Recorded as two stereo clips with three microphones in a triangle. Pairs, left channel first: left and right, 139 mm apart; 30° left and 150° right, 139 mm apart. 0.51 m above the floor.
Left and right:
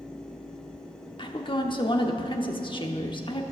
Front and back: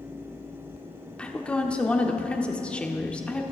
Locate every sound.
1.2 s a woman speaking: 105° left, 1.0 m